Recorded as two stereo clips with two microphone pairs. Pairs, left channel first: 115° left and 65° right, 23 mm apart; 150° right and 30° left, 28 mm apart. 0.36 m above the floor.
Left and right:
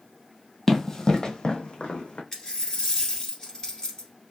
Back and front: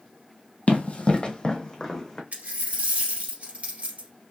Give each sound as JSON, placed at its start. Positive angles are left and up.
{"t": 0.7, "sound": "running footsteps", "azimuth_deg": -175, "distance_m": 0.8}
{"t": 2.3, "sound": "a dropped coin", "azimuth_deg": 60, "distance_m": 1.7}